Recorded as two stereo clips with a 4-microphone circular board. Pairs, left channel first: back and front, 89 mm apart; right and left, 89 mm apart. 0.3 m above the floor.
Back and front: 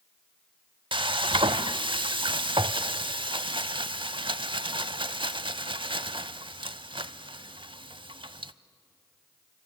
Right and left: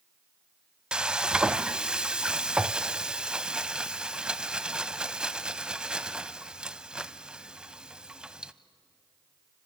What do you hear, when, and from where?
0.9 s frying: 10° left, 0.5 m